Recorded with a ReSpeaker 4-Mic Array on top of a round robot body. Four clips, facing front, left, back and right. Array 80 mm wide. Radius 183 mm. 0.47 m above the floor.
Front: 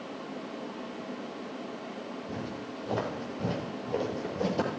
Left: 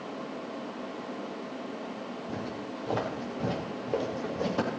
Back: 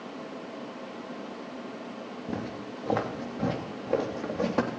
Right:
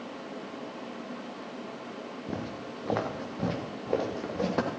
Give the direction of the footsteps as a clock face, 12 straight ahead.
5 o'clock.